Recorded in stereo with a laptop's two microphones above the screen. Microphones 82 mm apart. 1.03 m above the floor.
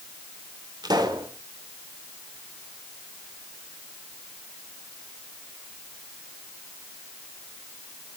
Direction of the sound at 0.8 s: 60° right (ahead or behind).